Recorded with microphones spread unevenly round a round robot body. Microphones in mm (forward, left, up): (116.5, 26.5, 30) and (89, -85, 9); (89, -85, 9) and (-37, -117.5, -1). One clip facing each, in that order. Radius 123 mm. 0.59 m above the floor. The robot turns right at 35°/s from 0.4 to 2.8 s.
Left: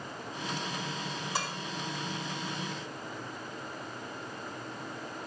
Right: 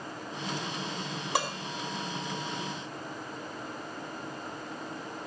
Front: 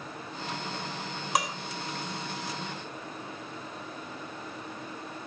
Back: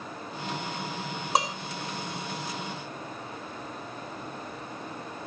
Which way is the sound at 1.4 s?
105° right.